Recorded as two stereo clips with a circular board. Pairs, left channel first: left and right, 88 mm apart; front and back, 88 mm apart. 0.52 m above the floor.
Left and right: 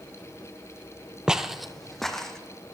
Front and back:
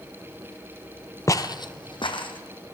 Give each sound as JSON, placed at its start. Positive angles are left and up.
{"t": 1.3, "sound": "footsteps", "azimuth_deg": -15, "distance_m": 0.6}